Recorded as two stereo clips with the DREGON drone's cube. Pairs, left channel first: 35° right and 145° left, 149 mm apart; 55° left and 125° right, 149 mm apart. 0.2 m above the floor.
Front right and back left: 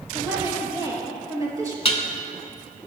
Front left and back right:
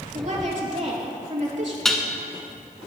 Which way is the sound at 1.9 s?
30° right.